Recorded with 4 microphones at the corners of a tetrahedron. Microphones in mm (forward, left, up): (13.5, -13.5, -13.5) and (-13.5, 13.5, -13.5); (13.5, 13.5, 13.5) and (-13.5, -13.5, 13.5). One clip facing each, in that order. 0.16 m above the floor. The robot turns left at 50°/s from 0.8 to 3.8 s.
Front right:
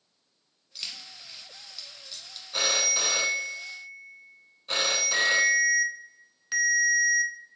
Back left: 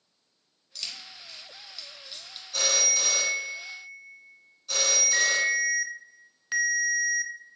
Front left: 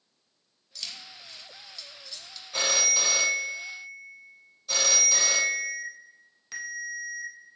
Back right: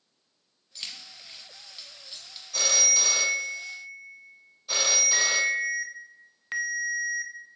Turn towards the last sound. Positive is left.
turn(degrees=-155)